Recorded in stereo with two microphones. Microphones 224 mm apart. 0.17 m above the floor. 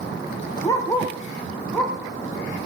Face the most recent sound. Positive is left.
turn(degrees=0)  # may be behind; listen again after turning